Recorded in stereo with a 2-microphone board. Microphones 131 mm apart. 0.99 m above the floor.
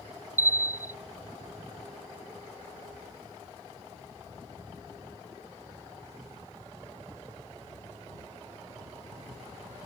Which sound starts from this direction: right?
A bell, at 0.4 s.